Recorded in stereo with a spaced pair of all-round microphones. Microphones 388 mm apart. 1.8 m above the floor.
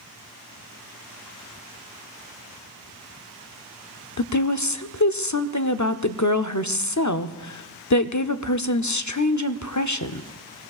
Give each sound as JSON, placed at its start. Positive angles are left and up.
{"t": 4.2, "sound": "a woman speaking", "side_deg": 45, "distance_m": 0.5}